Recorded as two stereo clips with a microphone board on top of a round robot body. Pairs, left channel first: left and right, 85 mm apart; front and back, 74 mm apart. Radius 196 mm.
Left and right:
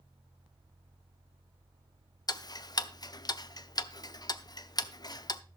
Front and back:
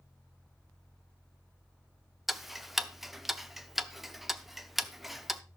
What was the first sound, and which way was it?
Ticking, 90° left.